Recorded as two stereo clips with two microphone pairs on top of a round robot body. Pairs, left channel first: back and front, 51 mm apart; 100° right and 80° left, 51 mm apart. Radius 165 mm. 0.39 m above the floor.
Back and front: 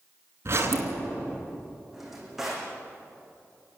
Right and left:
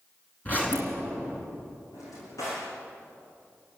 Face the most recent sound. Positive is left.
turn(degrees=-85)